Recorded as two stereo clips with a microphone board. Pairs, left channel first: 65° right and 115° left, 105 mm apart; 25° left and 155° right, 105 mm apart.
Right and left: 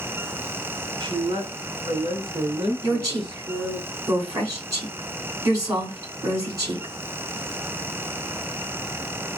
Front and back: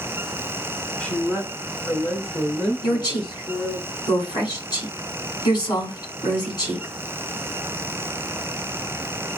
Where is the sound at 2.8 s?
60° left, 3 m.